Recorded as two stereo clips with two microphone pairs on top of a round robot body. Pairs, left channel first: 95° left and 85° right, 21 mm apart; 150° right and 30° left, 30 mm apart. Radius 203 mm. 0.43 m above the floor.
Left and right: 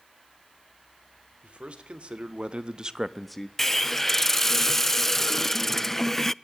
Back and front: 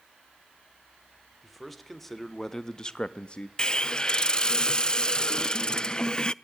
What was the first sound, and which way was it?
A man speaking, 60° right.